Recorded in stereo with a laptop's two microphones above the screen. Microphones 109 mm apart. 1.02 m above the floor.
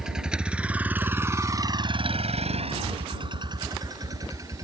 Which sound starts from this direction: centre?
A vehicle, at 0.0 s.